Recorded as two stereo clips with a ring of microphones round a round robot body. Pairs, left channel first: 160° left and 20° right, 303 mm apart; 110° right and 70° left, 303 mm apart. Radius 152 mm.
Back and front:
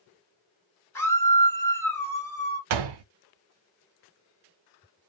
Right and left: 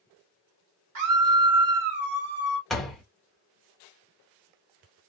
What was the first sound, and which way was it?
A scream, 75° left.